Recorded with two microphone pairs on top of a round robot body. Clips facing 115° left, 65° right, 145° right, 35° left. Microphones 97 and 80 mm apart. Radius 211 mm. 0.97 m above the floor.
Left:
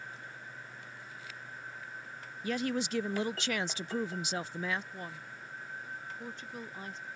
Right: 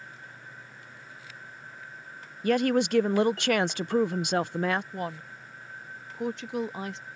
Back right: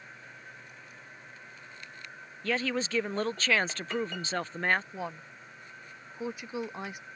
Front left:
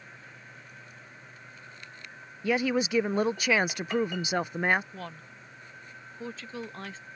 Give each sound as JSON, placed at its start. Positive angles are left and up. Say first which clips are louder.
{"t": 2.4, "sound": "a woman speaking", "louder": "right 10 dB, front left 4 dB", "azimuth_deg": -40}
{"t": 4.9, "sound": "a woman speaking", "louder": "right 9 dB, back right 3 dB", "azimuth_deg": -70}